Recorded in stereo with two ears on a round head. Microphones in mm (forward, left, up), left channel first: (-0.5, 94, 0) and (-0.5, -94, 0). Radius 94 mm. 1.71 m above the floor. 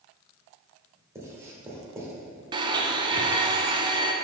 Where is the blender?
20° right (ahead or behind), 0.5 m.